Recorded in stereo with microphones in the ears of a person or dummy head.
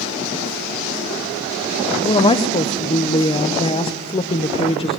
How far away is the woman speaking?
About 0.9 m.